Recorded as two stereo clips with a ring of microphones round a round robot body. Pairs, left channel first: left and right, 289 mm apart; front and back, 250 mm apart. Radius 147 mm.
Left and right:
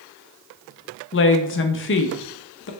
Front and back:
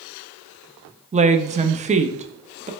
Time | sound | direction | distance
1.1 | a woman speaking | 125° left | 0.5 m